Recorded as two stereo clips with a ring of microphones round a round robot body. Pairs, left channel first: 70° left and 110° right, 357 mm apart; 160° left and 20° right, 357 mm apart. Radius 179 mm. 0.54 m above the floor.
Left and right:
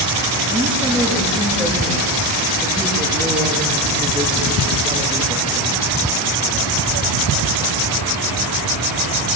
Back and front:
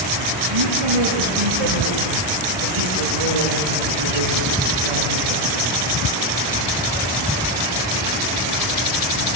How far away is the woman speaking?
About 9.5 m.